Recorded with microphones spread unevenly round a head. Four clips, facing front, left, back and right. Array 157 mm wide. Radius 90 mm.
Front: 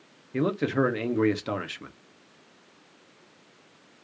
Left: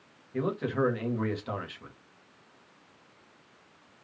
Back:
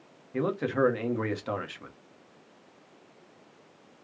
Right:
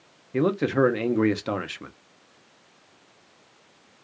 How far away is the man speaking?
About 1.4 m.